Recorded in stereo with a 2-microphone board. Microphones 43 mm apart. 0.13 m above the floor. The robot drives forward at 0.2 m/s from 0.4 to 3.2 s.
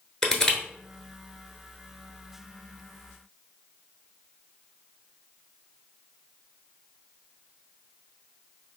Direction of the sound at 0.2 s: 15° left (ahead or behind).